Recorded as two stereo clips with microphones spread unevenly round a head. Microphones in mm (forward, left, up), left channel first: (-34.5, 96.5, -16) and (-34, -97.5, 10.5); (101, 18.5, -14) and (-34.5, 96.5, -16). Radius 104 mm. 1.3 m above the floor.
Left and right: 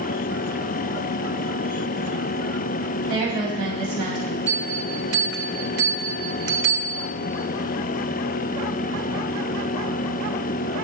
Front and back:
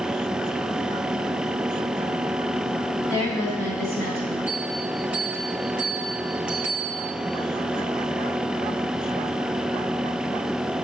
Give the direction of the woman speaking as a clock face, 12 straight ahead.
3 o'clock.